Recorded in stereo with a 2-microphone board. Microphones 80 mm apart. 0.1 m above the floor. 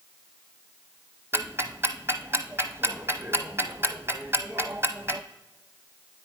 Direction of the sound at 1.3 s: 30° right (ahead or behind).